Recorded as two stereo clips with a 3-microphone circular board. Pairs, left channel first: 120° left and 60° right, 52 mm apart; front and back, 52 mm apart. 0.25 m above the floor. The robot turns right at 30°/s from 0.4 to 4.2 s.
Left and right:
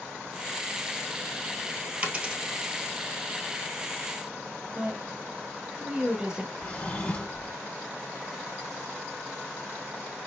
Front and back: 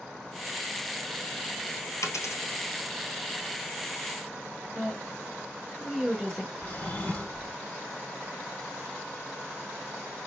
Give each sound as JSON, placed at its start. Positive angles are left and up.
{"t": 2.0, "sound": "a dropped coin", "azimuth_deg": 0, "distance_m": 0.8}
{"t": 4.8, "sound": "a woman speaking", "azimuth_deg": -75, "distance_m": 1.0}
{"t": 6.6, "sound": "a drawer", "azimuth_deg": 60, "distance_m": 1.2}